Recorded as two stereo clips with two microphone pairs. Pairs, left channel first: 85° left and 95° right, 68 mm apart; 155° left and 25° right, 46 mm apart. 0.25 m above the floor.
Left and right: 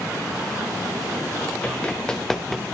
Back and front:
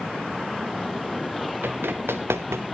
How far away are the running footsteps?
About 1.9 m.